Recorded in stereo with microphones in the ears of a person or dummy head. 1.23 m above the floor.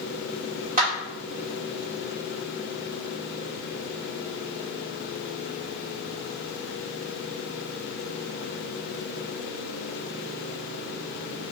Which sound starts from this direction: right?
A clap, at 0.8 s.